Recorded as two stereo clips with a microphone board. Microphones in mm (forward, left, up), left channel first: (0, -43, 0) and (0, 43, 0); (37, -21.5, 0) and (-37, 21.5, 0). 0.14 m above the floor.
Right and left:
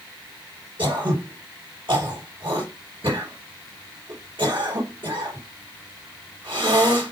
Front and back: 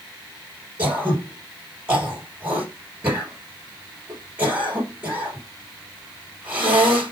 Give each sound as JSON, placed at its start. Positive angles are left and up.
{"t": 0.8, "sound": "throat clearing", "azimuth_deg": 85, "distance_m": 3.5}